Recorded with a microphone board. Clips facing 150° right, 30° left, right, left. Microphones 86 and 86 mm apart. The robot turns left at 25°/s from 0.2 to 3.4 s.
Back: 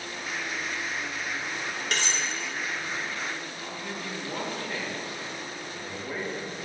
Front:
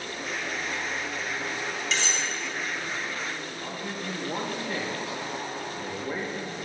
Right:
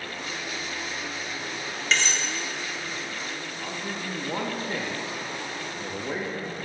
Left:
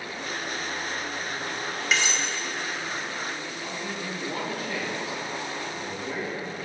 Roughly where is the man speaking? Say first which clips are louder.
Front 2 dB, even; ahead right.